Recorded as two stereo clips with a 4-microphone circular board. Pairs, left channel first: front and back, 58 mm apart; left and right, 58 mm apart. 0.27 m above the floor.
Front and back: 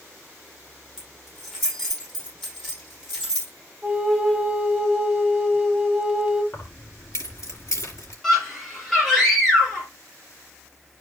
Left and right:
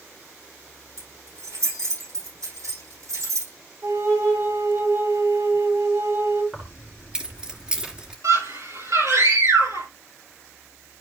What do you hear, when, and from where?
1.0 s keys jangling: 80° right, 6.5 m
3.8 s a flute: 95° right, 1.7 m
6.5 s keys jangling: 15° right, 2.5 m
8.2 s a scream: 85° right, 5 m